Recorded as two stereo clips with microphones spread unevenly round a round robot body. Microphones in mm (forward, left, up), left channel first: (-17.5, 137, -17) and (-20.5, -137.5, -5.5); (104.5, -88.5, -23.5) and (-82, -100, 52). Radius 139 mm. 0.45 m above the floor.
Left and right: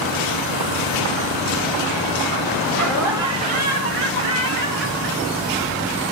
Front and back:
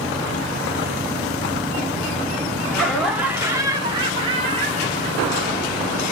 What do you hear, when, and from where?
2.7 s laughter: 20° left, 0.9 m; by 6.0 s 110° right, 2 m